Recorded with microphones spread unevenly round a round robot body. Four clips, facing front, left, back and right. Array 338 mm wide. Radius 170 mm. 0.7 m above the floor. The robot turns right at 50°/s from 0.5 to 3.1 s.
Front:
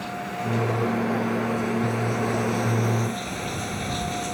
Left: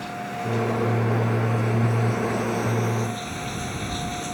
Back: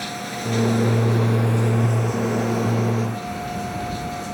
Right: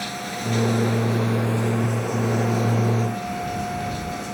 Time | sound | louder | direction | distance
0.0 | running water | even, back 1 dB | 155° right | ?